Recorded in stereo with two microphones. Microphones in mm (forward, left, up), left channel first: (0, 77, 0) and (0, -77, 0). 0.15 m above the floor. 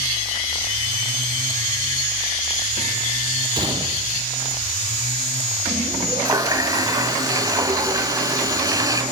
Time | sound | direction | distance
3.5 | a gunshot | 30° right (ahead or behind) | 2.5 m
6.2 | a running tap | 25° right (ahead or behind) | 0.9 m